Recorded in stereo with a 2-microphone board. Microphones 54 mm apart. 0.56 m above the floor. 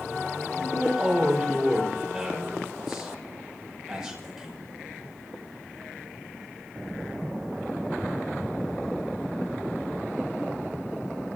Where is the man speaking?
5° right (ahead or behind), 6 m.